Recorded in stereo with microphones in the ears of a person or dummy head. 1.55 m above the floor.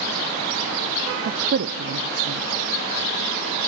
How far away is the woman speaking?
About 0.7 m.